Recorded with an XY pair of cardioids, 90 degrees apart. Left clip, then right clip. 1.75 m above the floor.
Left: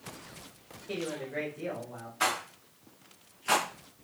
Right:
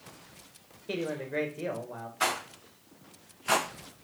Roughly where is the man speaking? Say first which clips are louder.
Right 2 dB; ahead right.